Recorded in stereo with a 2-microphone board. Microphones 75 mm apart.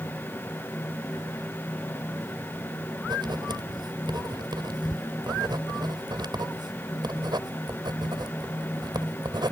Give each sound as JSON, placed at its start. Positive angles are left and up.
{"t": 3.0, "sound": "writing", "side_deg": -70}